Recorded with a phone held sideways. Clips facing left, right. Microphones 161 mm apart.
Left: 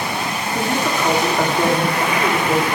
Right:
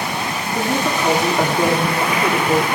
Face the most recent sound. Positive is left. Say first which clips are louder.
# right 1 dB
turn(degrees=-5)  # may be behind; listen again after turning